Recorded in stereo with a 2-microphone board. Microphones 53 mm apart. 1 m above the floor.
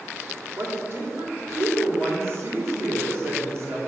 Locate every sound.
0.6 s a woman speaking: 50° right (ahead or behind), 3 m